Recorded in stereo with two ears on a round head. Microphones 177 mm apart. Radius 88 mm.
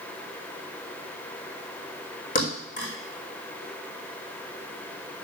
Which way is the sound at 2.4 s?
45° left (ahead or behind).